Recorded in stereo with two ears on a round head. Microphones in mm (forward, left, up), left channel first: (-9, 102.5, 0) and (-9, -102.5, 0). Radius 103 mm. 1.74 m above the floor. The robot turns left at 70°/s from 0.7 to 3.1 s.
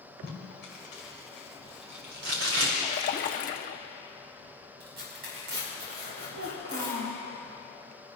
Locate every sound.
0.2 s tape being pulled: 50° left (ahead or behind), 4 m; by 2.7 s 70° right (ahead or behind), 4 m
2.8 s a splash: 25° left (ahead or behind), 0.8 m; by 3.8 s 35° left (ahead or behind), 0.8 m
4.8 s tearing paper: 55° right (ahead or behind), 5 m
6.3 s a child speaking: 65° right (ahead or behind), 3 m